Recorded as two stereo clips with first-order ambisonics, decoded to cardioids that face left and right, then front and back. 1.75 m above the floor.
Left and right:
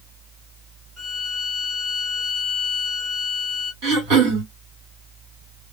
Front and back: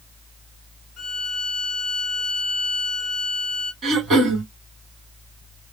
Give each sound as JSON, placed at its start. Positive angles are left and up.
{"t": 1.0, "sound": "a violin", "azimuth_deg": 20, "distance_m": 0.8}
{"t": 3.8, "sound": "throat clearing", "azimuth_deg": -115, "distance_m": 2.0}